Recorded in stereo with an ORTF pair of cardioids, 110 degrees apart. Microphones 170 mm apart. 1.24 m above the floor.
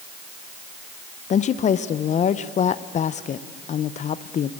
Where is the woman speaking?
45° left, 0.7 m.